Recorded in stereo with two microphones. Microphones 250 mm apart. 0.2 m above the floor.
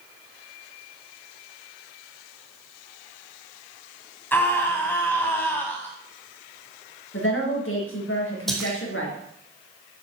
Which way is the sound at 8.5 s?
Centre (ahead or behind).